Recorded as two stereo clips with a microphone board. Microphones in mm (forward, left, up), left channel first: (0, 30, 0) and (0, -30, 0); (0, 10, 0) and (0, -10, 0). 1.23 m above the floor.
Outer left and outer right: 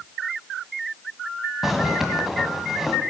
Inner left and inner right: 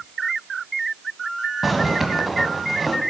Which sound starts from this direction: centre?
A zipper, at 1.6 s.